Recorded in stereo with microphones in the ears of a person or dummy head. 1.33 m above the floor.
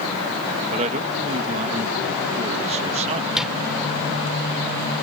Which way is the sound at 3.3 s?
5° right (ahead or behind).